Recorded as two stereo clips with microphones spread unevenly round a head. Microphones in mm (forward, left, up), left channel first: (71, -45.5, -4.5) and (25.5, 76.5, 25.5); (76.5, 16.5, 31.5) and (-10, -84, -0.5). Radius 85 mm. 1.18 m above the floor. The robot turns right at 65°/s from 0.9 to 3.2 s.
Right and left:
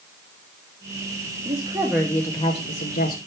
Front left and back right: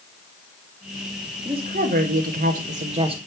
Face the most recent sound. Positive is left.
turn(degrees=-80)